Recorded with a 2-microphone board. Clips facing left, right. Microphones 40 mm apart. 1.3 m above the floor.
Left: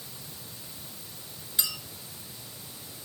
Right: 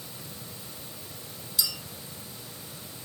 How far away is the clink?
About 4.5 m.